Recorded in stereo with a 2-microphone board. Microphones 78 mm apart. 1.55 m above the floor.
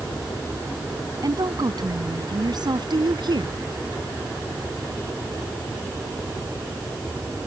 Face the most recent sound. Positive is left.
turn(degrees=-65)  # may be behind; listen again after turning